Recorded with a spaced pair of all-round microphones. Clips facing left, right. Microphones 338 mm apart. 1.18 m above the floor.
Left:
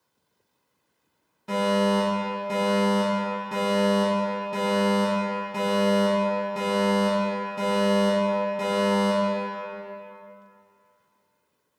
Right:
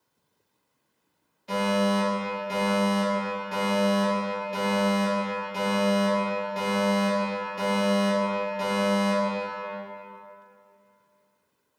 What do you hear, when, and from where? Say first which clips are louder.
1.5 s a fire alarm: left 2 dB; 60° left (ahead or behind), 2.0 m